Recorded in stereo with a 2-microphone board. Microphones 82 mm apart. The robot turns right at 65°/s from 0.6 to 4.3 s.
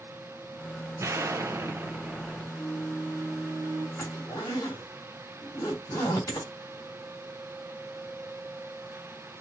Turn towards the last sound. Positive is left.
turn(degrees=45)  # may be behind; listen again after turning